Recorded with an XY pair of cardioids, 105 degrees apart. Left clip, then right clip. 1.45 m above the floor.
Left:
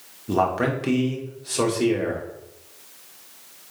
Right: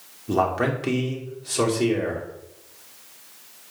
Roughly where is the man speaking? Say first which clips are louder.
Even; ahead.